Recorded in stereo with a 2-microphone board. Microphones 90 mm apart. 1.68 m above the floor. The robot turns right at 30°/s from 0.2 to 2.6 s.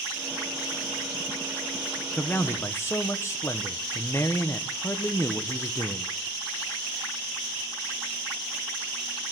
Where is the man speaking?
15° left (ahead or behind), 1.2 m; by 6.1 s 30° left (ahead or behind), 1.2 m.